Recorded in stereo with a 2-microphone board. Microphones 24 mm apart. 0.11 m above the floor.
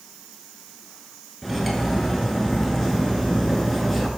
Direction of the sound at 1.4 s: 5° left (ahead or behind).